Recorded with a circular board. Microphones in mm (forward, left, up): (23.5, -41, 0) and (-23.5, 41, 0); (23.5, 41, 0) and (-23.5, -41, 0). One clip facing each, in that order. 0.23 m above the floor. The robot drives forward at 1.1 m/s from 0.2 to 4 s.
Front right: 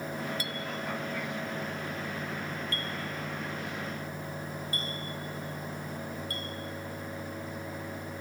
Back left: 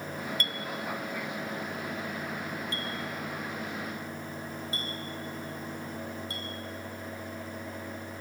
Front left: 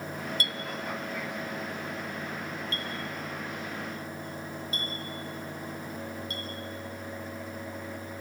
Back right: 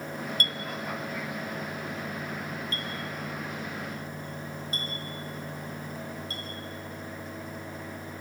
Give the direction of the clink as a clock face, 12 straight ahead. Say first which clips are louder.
Even, back right 1 dB; 5 o'clock.